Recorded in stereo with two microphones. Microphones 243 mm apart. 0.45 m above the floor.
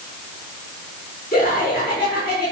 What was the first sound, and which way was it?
Laughter, 40° left (ahead or behind).